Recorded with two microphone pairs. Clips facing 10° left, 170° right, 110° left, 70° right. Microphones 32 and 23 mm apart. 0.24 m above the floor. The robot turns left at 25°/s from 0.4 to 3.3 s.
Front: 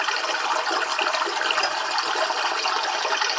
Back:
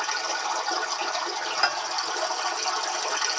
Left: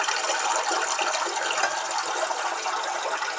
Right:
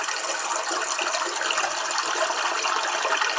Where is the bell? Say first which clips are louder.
Front 1 dB, left 1 dB; 160° left, 1.5 m; by 1.9 s 155° left, 1.5 m.